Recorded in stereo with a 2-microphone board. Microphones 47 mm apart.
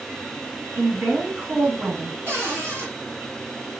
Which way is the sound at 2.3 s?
40° right (ahead or behind).